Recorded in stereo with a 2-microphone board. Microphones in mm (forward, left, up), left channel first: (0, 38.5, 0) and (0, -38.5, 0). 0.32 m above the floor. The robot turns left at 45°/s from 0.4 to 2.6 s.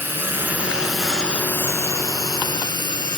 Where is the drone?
30° right (ahead or behind); by 3.2 s 70° left (ahead or behind).